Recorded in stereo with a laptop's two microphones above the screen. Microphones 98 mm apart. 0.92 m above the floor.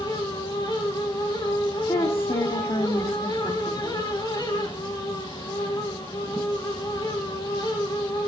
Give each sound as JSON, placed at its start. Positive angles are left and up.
{"t": 0.0, "sound": "a fan", "side_deg": 50, "distance_m": 6.5}
{"t": 1.9, "sound": "a woman speaking", "side_deg": 65, "distance_m": 1.5}